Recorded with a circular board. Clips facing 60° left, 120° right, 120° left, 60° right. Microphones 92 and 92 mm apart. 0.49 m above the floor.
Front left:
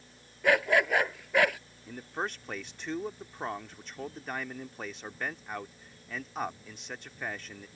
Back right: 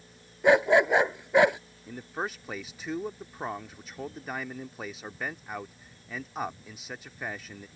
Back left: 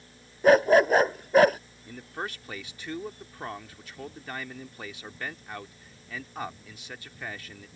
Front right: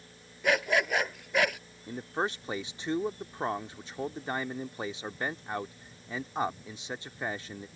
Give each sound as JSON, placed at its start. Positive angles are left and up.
{"t": 0.4, "sound": "a dog barking", "azimuth_deg": 170}
{"t": 1.9, "sound": "a man speaking", "azimuth_deg": -40}